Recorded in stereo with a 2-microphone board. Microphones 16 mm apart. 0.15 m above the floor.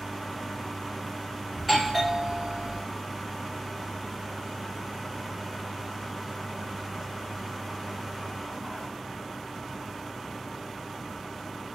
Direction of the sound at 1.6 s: Centre (ahead or behind).